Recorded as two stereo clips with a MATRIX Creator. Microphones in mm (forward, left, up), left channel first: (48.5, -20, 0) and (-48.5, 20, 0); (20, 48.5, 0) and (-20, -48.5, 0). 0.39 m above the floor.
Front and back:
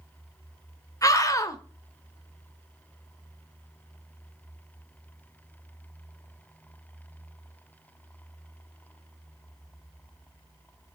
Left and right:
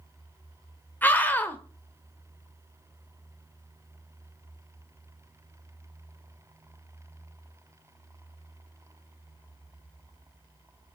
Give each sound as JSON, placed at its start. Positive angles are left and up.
{"t": 1.0, "sound": "a scream", "azimuth_deg": 5, "distance_m": 0.9}